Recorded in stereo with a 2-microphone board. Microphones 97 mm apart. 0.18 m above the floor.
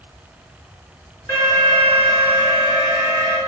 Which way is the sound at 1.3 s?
40° left (ahead or behind).